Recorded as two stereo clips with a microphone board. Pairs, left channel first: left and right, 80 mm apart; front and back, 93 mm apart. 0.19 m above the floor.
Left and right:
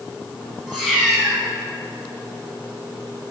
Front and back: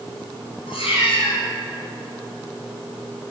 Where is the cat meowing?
10° right, 2.5 m.